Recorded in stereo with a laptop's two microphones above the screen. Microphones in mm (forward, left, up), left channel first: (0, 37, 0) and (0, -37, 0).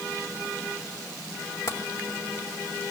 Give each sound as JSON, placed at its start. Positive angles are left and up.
{"t": 1.7, "sound": "tapping", "side_deg": 40, "distance_m": 1.9}